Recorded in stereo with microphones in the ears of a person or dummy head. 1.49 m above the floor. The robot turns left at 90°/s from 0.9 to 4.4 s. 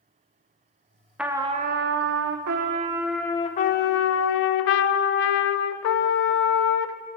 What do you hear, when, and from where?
1.2 s a trumpet: 5° right, 0.6 m; by 7.0 s 70° left, 0.6 m